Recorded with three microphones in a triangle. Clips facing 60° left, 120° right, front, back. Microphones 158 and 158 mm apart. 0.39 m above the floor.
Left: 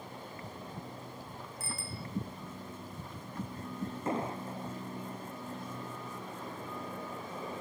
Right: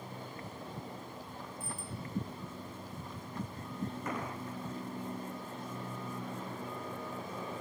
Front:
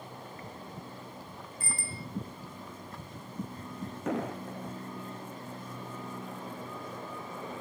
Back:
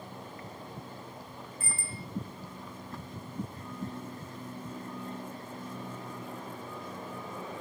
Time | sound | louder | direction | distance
1.6 | a bicycle bell | left 1 dB, front 3 dB | 50° left | ?
4.1 | an explosion | left 4 dB, front 9 dB | 5° right | ?